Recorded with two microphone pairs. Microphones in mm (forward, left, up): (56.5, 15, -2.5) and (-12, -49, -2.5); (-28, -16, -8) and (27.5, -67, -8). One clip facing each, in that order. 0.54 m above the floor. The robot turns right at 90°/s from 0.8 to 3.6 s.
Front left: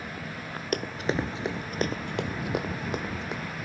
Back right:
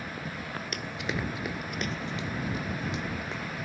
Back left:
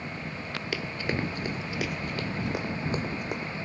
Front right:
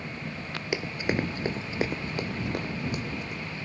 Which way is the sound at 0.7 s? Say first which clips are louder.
Front left 8 dB, front right 3 dB; 20° left.